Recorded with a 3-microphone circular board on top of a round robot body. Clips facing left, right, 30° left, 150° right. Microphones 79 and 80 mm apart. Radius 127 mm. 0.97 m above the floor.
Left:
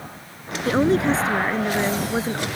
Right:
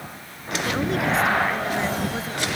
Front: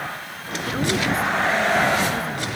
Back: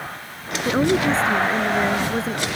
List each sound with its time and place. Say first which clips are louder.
0.7 s a woman speaking: left 6 dB, back 5 dB; 150° left